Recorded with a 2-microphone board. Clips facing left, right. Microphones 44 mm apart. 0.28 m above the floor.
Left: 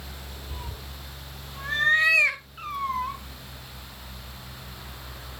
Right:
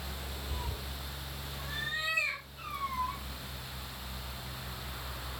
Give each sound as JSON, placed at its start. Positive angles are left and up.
{"t": 0.5, "sound": "a cat meowing", "side_deg": 5, "distance_m": 1.4}
{"t": 2.6, "sound": "a cat meowing", "side_deg": 50, "distance_m": 1.4}